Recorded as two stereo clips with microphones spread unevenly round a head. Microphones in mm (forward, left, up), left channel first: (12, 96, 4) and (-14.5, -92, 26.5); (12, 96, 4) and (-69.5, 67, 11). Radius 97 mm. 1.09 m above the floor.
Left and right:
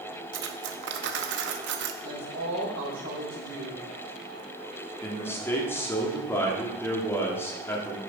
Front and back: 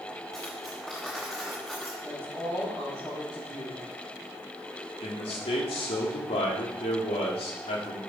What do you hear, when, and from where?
0.3 s cutlery clinking: 70° right, 0.8 m
2.0 s a woman speaking: 75° right, 4 m
5.0 s a man speaking: 5° left, 1.9 m